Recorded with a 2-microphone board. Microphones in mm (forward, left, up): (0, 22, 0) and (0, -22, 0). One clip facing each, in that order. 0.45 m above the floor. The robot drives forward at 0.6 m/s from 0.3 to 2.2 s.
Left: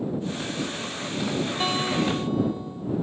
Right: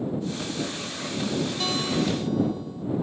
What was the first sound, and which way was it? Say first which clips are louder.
A guitar: left 3 dB; 30° left (ahead or behind).